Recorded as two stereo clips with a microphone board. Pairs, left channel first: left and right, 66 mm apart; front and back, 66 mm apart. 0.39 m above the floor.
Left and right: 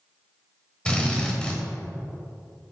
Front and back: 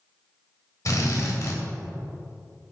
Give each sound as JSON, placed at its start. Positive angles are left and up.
{"t": 0.8, "sound": "a drill", "azimuth_deg": 20, "distance_m": 1.5}